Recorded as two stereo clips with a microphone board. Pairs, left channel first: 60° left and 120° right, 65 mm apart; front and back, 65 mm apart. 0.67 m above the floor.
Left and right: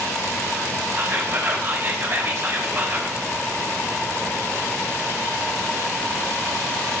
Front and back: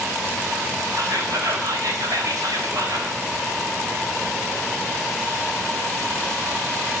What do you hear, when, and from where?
0.9 s whispering: 170° right, 3.5 m